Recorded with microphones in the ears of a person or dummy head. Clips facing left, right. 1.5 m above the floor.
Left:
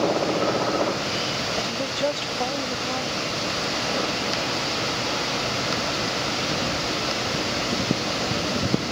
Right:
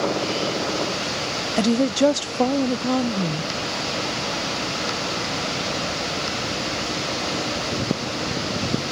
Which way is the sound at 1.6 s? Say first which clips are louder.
Right 12 dB; 50° right (ahead or behind).